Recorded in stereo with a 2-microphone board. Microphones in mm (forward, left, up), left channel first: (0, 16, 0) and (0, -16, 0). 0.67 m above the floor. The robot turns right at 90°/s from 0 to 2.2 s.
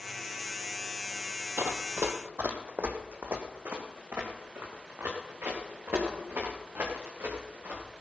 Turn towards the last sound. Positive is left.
turn(degrees=-80)